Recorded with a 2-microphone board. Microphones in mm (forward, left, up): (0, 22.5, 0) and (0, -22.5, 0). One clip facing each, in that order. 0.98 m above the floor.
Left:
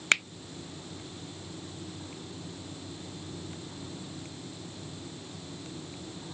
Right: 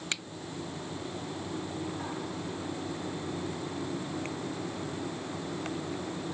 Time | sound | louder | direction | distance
0.1 | a finger snap | left 12 dB | 60° left (ahead or behind) | ?